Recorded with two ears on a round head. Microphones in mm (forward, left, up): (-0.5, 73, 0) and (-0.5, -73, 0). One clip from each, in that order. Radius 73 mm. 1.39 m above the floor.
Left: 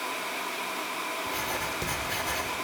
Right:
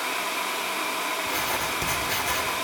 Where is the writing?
20° right (ahead or behind), 2.0 m.